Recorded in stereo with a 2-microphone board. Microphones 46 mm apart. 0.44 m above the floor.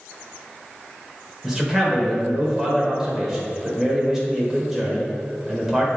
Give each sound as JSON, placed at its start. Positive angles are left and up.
{"t": 1.4, "sound": "a man speaking", "side_deg": -15, "distance_m": 2.0}